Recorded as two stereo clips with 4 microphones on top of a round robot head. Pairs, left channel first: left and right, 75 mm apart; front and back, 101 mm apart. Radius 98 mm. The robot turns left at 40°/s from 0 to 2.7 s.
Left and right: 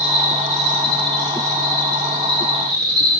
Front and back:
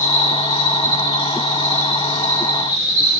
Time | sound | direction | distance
0.0 | an insect | straight ahead | 5.5 m